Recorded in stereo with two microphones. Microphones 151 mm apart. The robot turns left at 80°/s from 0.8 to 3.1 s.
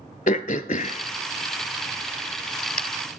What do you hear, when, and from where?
0.3 s throat clearing: 60° left (ahead or behind), 0.7 m; by 2.8 s 55° right (ahead or behind), 0.7 m